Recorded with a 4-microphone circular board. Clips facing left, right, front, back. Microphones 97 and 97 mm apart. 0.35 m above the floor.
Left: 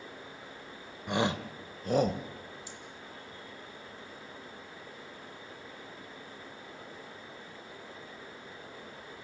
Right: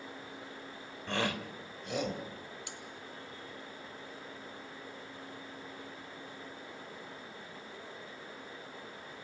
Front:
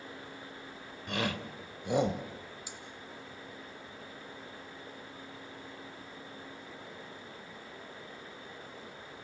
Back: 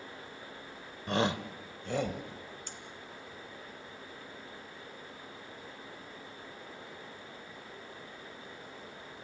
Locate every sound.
1.1 s a shout: 160° left, 1.1 m; by 2.2 s 55° left, 1.5 m
2.7 s cutlery clinking: 80° right, 2.5 m